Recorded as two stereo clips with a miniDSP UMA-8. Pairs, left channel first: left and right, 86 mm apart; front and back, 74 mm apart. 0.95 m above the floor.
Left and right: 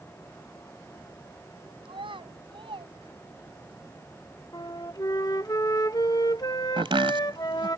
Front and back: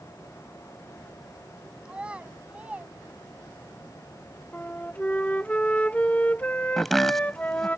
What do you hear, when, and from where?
1.9 s a child speaking: 100° right; by 3.8 s 110° right
4.5 s a flute: 65° left
6.8 s chopping: 85° right